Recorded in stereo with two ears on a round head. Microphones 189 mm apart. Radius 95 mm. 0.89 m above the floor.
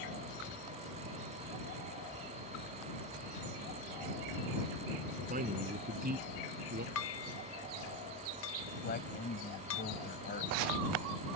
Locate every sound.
5.3 s a man speaking: 35° right (ahead or behind); by 6.8 s 45° right (ahead or behind)
7.0 s dishes clattering: 65° left (ahead or behind)
8.8 s a man speaking: 40° left (ahead or behind)